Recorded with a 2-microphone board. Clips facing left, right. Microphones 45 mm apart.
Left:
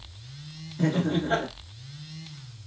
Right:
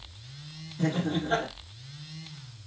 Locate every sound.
0.8 s laughter: 25° left (ahead or behind), 1.2 m